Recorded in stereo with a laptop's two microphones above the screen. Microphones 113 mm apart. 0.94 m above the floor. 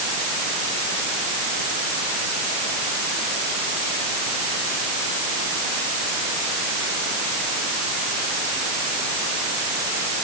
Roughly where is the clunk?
I don't hear a clunk.